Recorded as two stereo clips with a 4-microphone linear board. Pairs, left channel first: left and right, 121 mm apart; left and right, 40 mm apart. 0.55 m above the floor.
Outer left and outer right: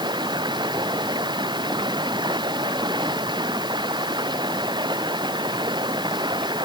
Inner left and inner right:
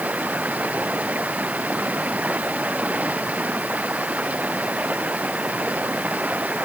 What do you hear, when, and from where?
0.0 s running water: 35° right (ahead or behind)